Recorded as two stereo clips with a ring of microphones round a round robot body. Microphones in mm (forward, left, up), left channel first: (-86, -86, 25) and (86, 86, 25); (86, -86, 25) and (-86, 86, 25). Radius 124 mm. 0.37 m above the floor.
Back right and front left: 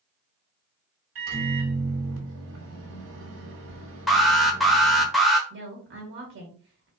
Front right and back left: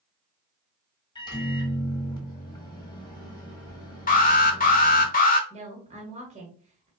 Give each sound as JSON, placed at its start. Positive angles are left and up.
{"t": 1.1, "sound": "a microwave", "azimuth_deg": 25, "distance_m": 1.3}
{"t": 4.1, "sound": "an alarm", "azimuth_deg": -45, "distance_m": 1.0}
{"t": 5.5, "sound": "a woman speaking", "azimuth_deg": 75, "distance_m": 1.4}